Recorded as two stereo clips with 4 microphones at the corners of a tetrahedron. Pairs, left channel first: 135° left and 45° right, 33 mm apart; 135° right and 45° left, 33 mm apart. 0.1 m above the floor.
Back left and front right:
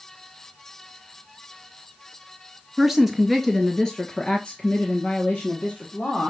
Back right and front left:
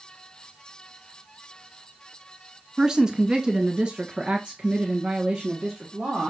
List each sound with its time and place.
2.8 s a woman speaking: 20° left, 1.4 m; by 6.3 s 100° left, 3 m